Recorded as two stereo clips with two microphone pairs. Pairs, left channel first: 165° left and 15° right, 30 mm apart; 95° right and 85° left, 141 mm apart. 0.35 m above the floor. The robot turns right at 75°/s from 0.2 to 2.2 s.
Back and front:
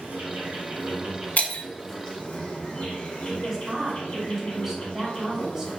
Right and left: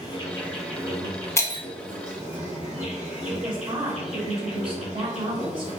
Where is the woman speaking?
50° left, 1.6 m.